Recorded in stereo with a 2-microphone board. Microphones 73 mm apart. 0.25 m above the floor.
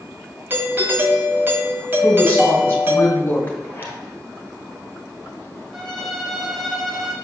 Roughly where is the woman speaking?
Left.